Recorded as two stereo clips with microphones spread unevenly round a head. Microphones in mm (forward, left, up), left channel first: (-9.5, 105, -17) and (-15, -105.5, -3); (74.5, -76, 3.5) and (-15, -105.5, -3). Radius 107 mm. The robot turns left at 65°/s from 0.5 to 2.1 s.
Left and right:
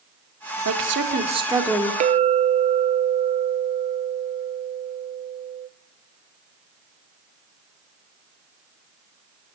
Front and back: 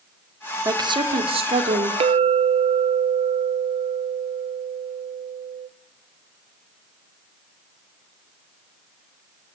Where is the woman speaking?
110° right, 2.5 m; by 1.9 s 165° left, 2.5 m.